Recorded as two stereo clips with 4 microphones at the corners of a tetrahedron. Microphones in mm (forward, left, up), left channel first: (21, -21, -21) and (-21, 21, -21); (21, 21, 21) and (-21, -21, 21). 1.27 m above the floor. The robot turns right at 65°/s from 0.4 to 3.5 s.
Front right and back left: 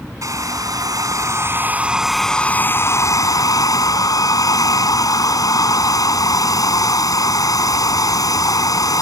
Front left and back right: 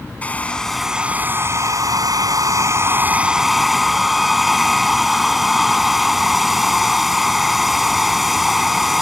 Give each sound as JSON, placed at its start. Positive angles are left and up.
{"t": 0.2, "sound": "a hair dryer", "azimuth_deg": 110}